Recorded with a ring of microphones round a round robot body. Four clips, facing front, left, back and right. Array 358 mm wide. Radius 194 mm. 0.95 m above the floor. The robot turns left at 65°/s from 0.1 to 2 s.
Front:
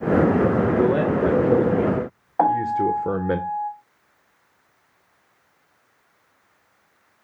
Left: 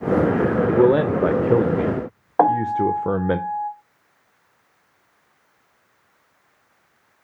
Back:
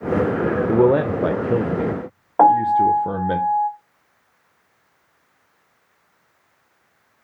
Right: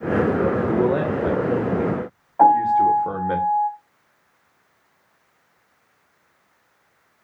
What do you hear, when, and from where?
0.7 s a man speaking: 160° left, 0.6 m; by 3.4 s 75° left, 0.6 m
2.4 s a piano: 125° left, 2.5 m